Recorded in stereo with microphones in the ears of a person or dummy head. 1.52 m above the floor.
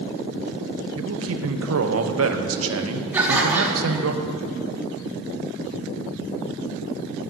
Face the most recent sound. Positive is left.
turn(degrees=-5)  # may be behind; listen again after turning